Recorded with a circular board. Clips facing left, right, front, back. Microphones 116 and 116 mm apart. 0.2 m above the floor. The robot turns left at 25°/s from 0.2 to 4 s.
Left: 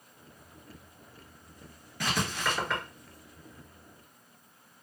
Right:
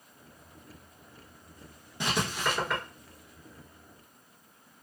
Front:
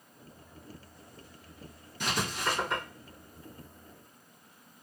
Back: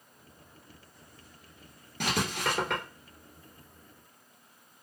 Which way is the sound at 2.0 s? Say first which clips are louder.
Right 1 dB, back 2 dB; 155° right.